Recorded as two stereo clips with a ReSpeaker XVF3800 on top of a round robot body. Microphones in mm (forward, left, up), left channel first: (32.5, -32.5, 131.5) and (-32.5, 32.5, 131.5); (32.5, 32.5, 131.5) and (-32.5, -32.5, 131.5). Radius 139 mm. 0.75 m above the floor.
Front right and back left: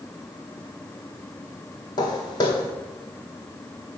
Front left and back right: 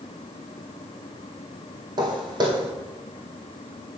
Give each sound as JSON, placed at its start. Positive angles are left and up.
{"t": 2.0, "sound": "footsteps", "azimuth_deg": -90, "distance_m": 1.5}